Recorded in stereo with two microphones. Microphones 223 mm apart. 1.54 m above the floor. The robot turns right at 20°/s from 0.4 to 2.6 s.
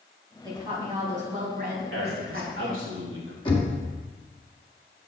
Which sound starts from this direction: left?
Knocking, at 3.5 s.